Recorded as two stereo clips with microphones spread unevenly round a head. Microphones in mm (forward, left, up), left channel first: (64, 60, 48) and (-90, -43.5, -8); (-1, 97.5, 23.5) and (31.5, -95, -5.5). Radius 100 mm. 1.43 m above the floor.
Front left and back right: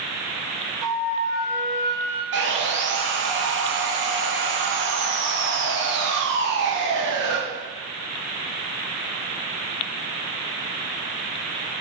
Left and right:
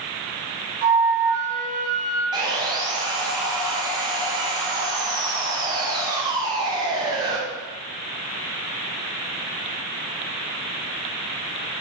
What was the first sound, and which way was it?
A flute, 70° right.